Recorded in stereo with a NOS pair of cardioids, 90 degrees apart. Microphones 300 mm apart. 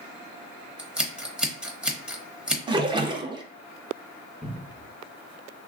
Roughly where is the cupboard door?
Ahead.